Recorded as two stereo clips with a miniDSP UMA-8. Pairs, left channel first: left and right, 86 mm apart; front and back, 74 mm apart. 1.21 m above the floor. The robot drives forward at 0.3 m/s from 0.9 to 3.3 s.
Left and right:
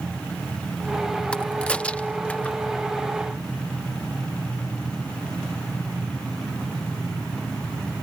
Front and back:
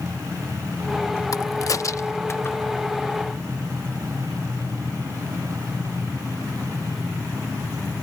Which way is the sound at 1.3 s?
15° left.